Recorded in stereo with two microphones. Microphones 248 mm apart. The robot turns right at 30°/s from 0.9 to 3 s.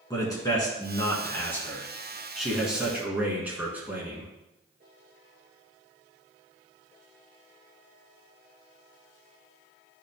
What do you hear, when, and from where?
0.1 s a man speaking: 15° left (ahead or behind), 1.6 m; by 4.3 s 5° right (ahead or behind), 1.6 m